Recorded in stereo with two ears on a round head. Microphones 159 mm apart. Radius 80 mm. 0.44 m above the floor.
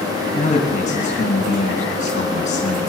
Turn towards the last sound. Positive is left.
turn(degrees=40)  # may be behind; listen again after turning